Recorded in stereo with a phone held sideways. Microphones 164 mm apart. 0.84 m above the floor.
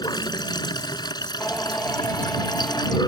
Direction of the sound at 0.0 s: 25° left (ahead or behind).